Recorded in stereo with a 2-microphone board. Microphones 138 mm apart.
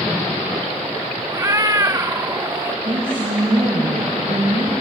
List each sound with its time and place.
1.3 s a cat meowing: 25° right (ahead or behind), 0.5 m
2.9 s a woman speaking: 40° right (ahead or behind), 5 m